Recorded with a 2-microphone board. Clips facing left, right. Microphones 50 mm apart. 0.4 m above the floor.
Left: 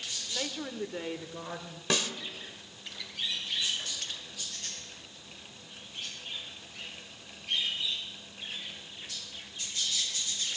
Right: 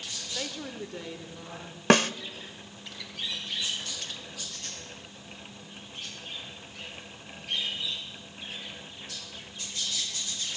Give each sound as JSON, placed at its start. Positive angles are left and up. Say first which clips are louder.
{"t": 0.3, "sound": "a woman speaking", "louder": "left 1 dB", "side_deg": 0, "distance_m": 1.2}
{"t": 1.9, "sound": "a snare drum", "louder": "right 10 dB", "side_deg": -50, "distance_m": 0.6}